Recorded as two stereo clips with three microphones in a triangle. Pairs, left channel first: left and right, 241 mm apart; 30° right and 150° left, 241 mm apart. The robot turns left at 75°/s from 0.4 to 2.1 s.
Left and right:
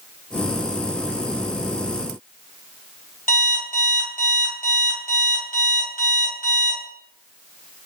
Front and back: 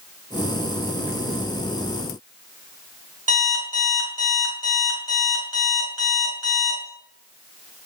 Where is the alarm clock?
145° left, 2 m.